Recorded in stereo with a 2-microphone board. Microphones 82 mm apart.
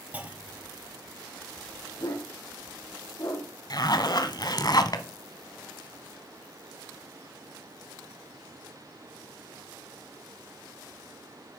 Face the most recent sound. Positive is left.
turn(degrees=55)  # may be behind; listen again after turning